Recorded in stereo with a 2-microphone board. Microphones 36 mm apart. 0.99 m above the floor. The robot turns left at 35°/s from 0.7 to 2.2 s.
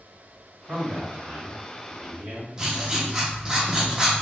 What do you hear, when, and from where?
0.7 s a man speaking: 55° right, 1.7 m; by 2.5 s 105° right, 1.7 m
2.6 s writing: 15° right (ahead or behind), 0.9 m